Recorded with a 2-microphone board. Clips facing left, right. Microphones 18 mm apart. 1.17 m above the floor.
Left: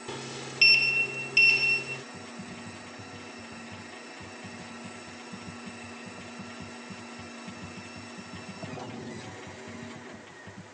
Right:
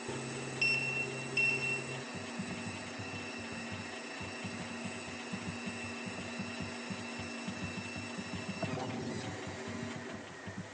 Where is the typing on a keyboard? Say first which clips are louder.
Right 1 dB; 45° right (ahead or behind).